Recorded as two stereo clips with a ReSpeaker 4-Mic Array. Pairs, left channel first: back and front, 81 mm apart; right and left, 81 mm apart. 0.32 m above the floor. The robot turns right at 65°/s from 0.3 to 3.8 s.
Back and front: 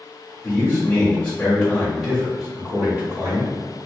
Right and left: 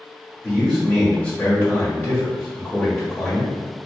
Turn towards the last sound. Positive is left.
turn(degrees=35)